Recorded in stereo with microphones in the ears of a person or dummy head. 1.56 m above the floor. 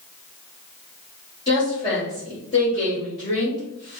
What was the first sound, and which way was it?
A woman speaking, 25° left (ahead or behind).